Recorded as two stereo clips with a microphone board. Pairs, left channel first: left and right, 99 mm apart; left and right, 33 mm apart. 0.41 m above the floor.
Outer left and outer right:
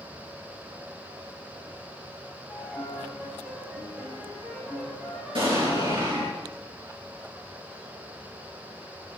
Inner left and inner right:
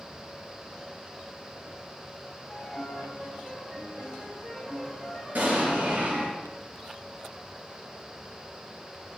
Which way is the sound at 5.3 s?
65° right (ahead or behind).